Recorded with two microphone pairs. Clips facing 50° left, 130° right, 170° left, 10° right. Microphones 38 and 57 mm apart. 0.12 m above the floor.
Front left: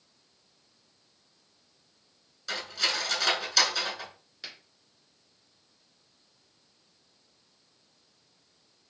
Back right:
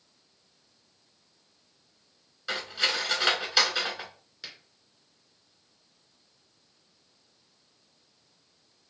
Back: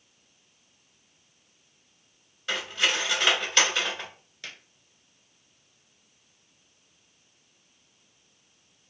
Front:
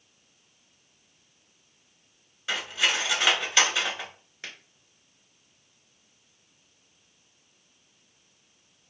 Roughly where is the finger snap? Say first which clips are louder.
Even, front 1 dB; ahead right.